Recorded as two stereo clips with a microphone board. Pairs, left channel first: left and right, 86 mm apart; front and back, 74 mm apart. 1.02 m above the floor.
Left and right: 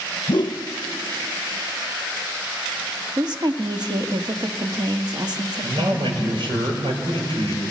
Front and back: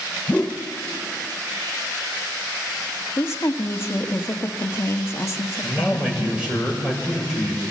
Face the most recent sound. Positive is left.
turn(degrees=-100)